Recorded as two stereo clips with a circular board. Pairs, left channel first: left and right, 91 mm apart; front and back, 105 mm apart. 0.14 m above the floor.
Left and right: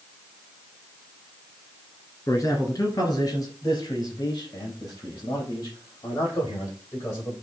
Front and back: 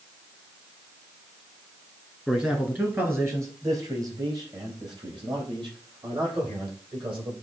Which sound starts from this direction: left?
A man speaking, at 2.3 s.